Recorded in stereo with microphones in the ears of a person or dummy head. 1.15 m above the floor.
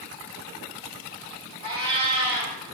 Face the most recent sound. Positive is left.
turn(degrees=-25)  # may be behind; listen again after turning